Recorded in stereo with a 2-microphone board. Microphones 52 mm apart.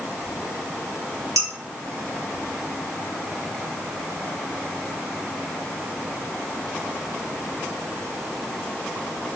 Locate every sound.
1.4 s dishes clattering: 70° right (ahead or behind), 2.5 m